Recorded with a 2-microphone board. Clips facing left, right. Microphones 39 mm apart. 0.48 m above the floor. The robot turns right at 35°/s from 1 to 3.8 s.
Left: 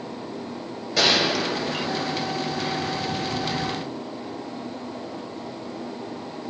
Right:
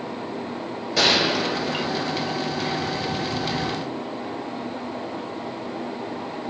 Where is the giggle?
No giggle in this recording.